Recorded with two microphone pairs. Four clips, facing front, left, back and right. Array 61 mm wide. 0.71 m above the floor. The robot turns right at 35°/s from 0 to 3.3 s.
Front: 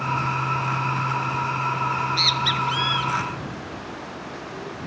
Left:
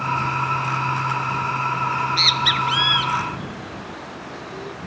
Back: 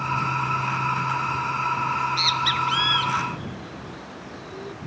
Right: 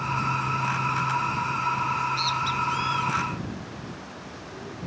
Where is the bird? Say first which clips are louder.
Left 5 dB, even; 75° left; by 4.8 s 125° left.